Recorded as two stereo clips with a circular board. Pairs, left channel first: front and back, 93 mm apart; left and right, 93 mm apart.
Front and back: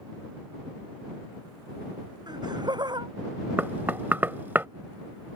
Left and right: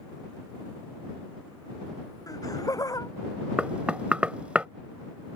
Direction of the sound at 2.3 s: 140° left.